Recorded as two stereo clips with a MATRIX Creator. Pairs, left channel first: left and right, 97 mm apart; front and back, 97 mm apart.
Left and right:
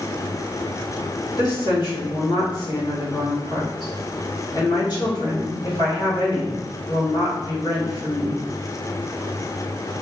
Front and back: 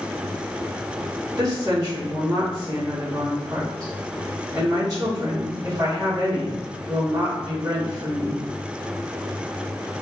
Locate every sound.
1.4 s a woman speaking: 130° left, 2 m